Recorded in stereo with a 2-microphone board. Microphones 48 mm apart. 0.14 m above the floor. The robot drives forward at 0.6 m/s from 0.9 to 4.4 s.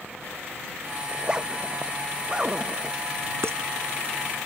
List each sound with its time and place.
1.1 s a zipper: 20° right (ahead or behind); by 3.0 s 15° right (ahead or behind)
3.4 s dishes clattering: 65° right (ahead or behind)